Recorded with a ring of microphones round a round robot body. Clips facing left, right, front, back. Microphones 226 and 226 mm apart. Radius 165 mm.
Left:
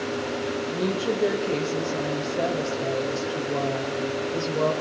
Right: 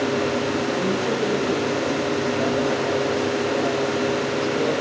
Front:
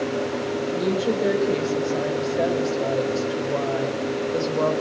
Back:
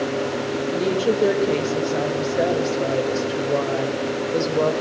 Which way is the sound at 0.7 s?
125° left.